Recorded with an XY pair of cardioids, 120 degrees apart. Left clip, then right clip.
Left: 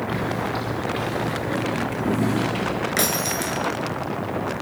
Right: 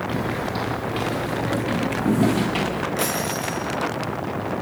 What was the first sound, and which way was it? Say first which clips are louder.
Footsteps: even; 5° right.